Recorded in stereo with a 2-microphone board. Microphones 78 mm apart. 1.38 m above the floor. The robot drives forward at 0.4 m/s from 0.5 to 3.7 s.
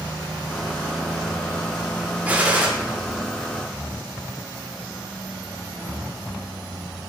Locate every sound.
2.2 s a gunshot: 20° right (ahead or behind), 0.5 m; by 2.7 s 15° right (ahead or behind), 0.7 m